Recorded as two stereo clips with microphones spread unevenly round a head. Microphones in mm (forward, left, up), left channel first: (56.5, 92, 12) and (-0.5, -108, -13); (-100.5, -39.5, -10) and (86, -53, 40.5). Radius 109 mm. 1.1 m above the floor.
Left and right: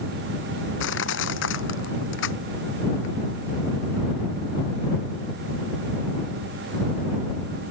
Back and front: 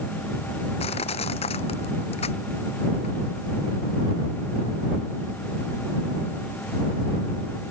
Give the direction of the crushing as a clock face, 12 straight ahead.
8 o'clock.